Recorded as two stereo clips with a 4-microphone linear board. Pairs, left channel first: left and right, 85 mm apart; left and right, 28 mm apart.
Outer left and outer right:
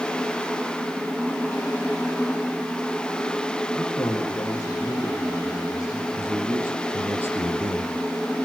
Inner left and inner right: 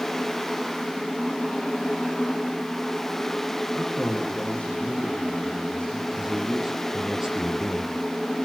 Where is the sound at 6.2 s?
25° right (ahead or behind), 5 m.